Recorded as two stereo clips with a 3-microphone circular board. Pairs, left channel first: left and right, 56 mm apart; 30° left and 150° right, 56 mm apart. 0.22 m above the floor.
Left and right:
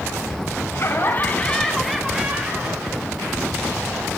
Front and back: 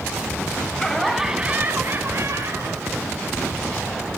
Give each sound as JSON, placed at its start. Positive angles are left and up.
{"t": 0.7, "sound": "laughter", "azimuth_deg": 105, "distance_m": 1.7}